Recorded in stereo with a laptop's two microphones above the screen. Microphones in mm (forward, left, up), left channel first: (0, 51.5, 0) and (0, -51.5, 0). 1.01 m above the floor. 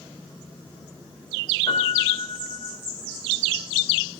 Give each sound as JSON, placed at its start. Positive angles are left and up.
{"t": 1.7, "sound": "a piano", "side_deg": 40, "distance_m": 5.0}